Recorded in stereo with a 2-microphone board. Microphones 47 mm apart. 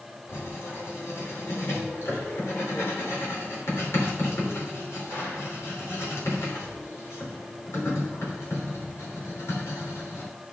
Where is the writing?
70° left (ahead or behind), 3.5 m.